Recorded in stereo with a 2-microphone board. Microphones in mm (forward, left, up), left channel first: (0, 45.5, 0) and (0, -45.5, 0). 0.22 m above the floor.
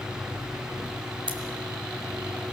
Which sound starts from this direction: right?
Scissors, at 1.3 s.